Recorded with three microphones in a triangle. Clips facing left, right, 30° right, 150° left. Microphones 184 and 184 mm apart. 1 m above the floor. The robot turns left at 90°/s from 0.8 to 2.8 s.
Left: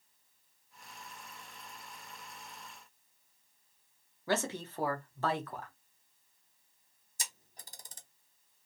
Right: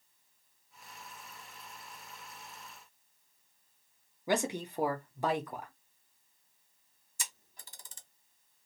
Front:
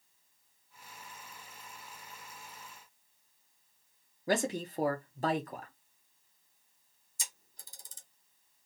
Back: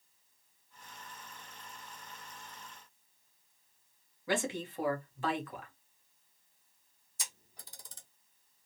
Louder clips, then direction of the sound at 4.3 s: Right 2 dB, front 3 dB; 20° right.